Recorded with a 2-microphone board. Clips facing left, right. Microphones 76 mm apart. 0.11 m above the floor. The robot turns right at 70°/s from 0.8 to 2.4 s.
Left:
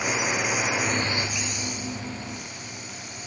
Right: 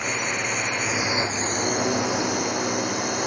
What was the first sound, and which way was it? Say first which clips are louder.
A drone: left 1 dB; 175° left.